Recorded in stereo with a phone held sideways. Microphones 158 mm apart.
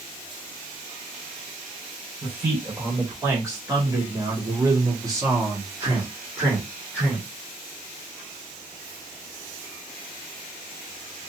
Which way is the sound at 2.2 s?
15° right (ahead or behind).